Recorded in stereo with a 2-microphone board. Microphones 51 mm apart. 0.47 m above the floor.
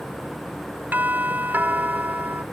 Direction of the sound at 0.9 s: 40° right (ahead or behind).